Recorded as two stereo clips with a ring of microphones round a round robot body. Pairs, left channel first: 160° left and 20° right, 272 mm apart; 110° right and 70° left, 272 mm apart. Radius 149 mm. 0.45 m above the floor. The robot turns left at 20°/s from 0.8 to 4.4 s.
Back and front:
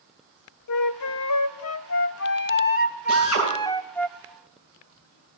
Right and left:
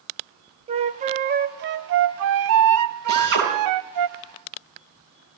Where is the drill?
120° left, 9.5 m; by 3.5 s 115° left, 9.5 m.